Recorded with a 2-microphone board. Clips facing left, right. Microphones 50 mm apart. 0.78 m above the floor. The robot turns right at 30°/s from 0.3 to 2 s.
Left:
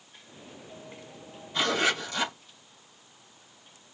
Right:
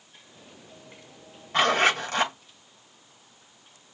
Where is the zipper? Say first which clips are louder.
Right 5 dB; 75° right (ahead or behind), 2.5 m; by 2.4 s 60° right (ahead or behind), 2.5 m.